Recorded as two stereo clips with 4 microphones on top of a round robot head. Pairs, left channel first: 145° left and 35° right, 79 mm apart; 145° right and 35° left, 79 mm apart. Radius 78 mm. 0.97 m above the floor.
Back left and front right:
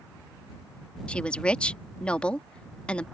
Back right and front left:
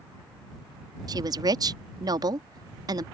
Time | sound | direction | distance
1.1 | a woman speaking | 70° left | ?